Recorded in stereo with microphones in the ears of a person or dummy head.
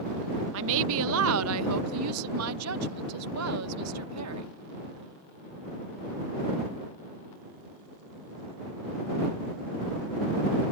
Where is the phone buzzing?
No phone buzzing in this recording.